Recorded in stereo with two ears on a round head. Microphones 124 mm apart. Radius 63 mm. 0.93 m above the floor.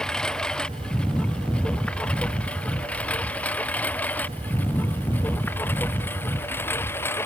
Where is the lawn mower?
5° left (ahead or behind); by 7.3 s 20° left (ahead or behind).